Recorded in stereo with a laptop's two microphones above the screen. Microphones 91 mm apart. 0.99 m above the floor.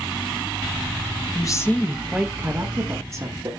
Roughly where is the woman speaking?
Left.